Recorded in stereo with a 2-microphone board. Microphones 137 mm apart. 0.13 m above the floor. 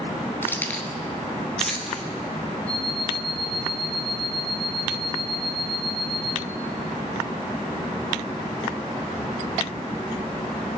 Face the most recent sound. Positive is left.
turn(degrees=30)  # may be behind; listen again after turning